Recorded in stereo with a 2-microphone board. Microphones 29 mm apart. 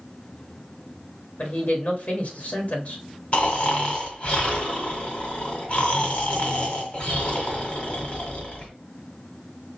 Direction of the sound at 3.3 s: 40° left (ahead or behind).